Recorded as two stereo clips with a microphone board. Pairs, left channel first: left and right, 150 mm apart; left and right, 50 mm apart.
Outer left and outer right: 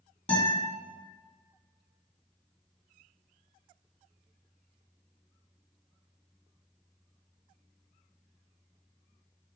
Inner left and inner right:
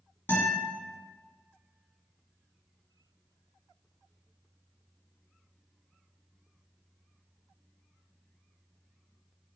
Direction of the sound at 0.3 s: 40° left (ahead or behind).